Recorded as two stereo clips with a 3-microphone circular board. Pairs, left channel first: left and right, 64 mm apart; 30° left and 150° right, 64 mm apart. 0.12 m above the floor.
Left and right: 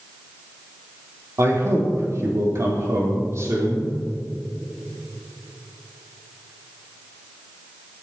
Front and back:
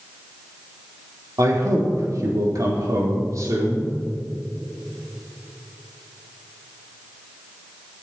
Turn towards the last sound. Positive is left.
turn(degrees=-125)